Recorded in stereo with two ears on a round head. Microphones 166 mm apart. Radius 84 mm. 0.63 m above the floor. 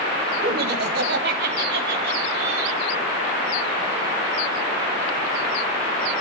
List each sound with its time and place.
0.4 s laughter: 60° right (ahead or behind), 3 m; by 2.8 s 70° right (ahead or behind), 4 m